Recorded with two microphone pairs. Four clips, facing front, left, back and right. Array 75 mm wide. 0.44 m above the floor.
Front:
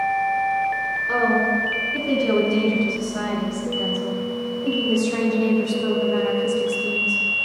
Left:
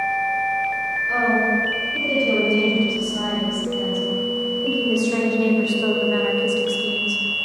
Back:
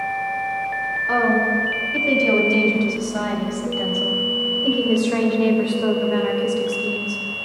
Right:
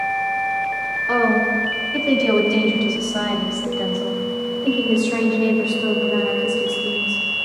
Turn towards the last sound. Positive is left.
turn(degrees=125)